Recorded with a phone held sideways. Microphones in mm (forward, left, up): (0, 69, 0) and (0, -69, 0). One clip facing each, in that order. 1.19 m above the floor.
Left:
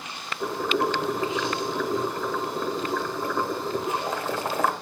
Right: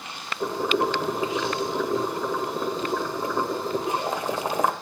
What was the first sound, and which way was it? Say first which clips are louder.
Boiling: right 1 dB; 15° right (ahead or behind).